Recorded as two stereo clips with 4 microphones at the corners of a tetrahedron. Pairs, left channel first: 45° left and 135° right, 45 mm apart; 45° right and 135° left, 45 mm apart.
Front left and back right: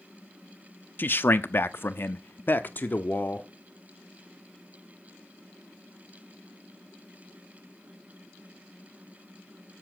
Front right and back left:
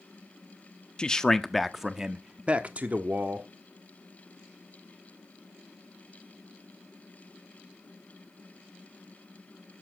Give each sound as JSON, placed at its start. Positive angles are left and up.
{"t": 1.0, "sound": "a man speaking", "azimuth_deg": 20, "distance_m": 0.9}